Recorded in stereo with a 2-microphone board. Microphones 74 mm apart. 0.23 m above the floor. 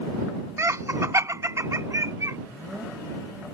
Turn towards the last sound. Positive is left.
turn(degrees=-40)  # may be behind; listen again after turning